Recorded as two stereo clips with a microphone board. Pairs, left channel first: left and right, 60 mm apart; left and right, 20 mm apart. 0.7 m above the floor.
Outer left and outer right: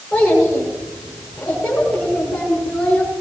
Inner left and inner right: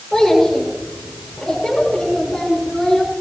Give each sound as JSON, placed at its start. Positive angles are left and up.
{"t": 0.1, "sound": "a child speaking", "side_deg": 10, "distance_m": 6.5}